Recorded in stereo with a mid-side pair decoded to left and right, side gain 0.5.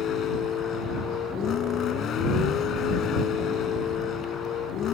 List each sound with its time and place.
0.0 s a vehicle: 60° left